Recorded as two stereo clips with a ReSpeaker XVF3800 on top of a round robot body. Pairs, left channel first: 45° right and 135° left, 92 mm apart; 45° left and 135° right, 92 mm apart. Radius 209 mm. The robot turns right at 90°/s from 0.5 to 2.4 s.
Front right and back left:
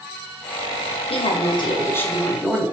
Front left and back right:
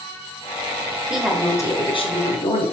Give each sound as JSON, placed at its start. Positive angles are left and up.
{"t": 1.1, "sound": "a woman speaking", "azimuth_deg": -55, "distance_m": 3.0}